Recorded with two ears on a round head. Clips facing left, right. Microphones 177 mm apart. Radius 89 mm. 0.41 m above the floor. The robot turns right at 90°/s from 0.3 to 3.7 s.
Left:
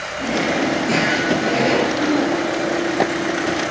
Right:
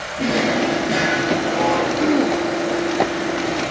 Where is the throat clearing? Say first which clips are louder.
Right 1 dB; 20° right (ahead or behind), 1.5 m; by 2.4 s 25° right (ahead or behind), 1.5 m.